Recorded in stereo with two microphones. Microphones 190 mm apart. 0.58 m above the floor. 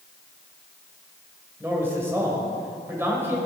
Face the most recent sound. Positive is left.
turn(degrees=-15)  # may be behind; listen again after turning